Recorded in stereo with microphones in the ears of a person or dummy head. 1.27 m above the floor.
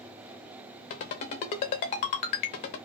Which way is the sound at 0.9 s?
35° left (ahead or behind).